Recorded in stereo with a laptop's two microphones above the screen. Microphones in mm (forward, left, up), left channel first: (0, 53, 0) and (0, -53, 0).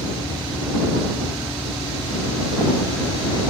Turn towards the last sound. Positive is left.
turn(degrees=20)  # may be behind; listen again after turning